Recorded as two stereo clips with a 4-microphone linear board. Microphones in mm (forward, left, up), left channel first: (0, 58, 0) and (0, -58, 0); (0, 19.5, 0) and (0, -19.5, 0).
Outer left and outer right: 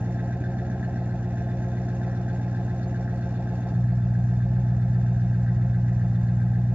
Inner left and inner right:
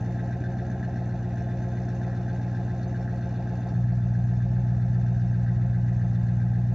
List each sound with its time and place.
0.0 s an engine running: 10° right (ahead or behind), 2.5 m